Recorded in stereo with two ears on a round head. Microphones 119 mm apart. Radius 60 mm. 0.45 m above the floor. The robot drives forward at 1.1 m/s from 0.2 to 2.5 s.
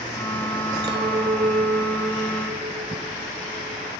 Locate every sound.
0.8 s a clink: 30° right (ahead or behind), 1.1 m